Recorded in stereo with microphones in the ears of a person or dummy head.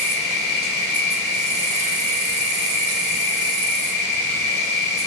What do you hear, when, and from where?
0.0 s an insect: 60° right (ahead or behind), 1.0 m